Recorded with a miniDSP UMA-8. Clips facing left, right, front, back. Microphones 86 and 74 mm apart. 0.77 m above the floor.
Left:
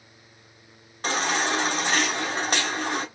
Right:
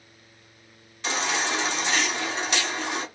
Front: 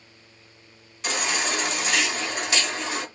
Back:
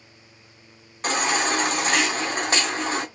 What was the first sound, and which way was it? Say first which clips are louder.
A baby crying: left 2 dB, back 4 dB; 135° left.